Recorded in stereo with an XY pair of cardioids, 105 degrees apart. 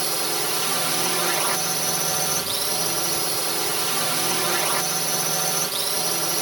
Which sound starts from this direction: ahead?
A drone, at 0.0 s.